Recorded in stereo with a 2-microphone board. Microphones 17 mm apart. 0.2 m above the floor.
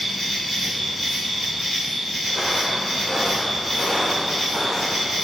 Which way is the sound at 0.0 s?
25° right (ahead or behind).